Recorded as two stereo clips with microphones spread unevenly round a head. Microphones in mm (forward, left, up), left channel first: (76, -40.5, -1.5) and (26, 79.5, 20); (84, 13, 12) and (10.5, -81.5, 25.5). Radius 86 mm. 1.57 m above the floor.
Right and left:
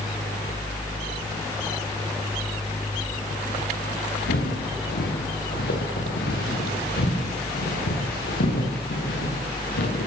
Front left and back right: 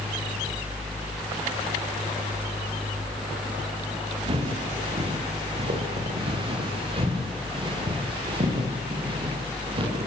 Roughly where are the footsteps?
Right.